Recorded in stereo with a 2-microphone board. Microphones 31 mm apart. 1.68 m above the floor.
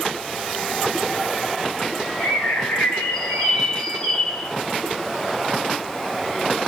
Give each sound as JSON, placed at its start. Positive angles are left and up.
{"t": 2.2, "sound": "a bird", "side_deg": 55, "distance_m": 2.0}